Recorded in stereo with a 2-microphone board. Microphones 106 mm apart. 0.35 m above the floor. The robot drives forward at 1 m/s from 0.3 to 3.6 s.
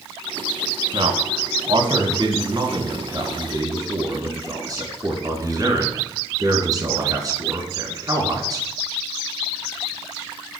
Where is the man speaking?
65° right (ahead or behind), 3 m; by 8.7 s 35° right (ahead or behind), 4.5 m.